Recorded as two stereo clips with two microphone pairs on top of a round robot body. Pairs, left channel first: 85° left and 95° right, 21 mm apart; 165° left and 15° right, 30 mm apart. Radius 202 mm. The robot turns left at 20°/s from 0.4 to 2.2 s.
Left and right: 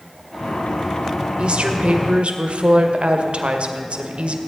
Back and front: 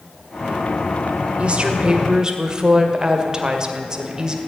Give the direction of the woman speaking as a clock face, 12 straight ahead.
2 o'clock.